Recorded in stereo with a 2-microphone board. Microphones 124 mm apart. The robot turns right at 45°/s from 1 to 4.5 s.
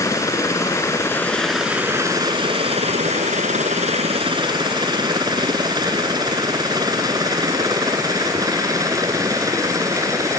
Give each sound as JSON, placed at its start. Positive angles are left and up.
{"t": 0.0, "sound": "a helicopter", "side_deg": 25}